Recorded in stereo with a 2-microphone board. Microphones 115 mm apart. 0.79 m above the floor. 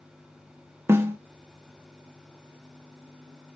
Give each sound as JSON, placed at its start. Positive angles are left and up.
{"t": 0.9, "sound": "a snare drum", "side_deg": -20, "distance_m": 0.5}